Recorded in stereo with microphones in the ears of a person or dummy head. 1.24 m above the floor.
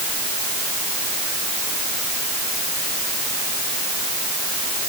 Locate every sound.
Only background noise.